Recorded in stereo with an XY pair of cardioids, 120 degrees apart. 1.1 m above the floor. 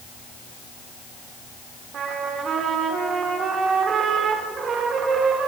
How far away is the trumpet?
About 4 m.